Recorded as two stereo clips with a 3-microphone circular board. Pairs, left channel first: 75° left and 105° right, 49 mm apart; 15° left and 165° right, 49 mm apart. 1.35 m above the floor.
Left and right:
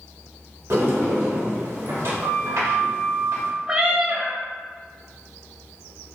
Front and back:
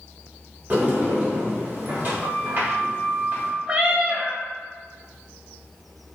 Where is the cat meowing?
150° right, 0.5 m.